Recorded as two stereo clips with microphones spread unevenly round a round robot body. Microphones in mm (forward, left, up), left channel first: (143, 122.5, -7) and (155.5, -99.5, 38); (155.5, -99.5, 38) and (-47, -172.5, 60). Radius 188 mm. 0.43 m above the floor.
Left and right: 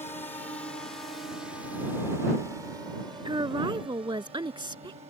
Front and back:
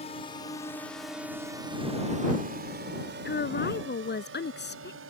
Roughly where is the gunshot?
I don't hear a gunshot.